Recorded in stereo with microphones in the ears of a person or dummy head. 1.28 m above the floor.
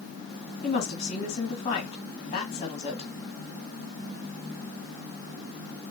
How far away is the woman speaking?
About 1.6 m.